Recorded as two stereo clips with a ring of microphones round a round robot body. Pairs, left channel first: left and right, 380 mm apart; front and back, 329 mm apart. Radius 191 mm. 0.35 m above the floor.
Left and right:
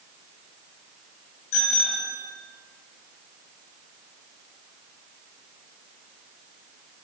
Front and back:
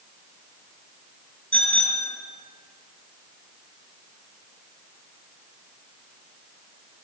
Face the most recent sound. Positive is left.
turn(degrees=70)